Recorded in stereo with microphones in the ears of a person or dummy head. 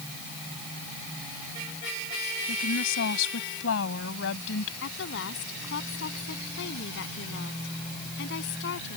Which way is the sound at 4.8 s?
65° left (ahead or behind).